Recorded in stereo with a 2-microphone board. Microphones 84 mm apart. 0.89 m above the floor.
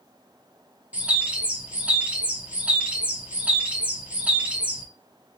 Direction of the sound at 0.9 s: 15° right (ahead or behind).